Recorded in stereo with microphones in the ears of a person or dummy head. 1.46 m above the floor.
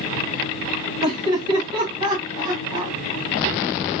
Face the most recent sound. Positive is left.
turn(degrees=-25)  # may be behind; listen again after turning